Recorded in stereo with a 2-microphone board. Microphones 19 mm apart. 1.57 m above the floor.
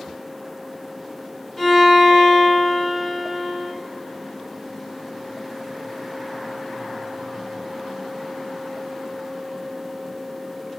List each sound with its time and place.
1.6 s a violin: 10° left (ahead or behind), 1.7 m